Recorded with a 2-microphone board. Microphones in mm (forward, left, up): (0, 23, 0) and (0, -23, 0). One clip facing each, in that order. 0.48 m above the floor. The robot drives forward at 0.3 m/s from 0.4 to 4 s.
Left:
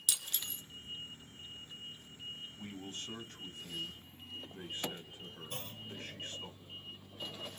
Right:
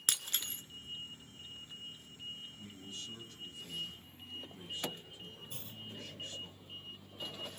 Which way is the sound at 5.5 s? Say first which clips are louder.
Left 4 dB; 60° left (ahead or behind).